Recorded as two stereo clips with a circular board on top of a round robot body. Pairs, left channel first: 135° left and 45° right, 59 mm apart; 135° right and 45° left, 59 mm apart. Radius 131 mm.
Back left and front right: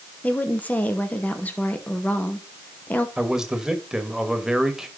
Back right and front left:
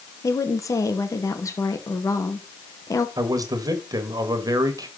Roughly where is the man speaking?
Ahead left.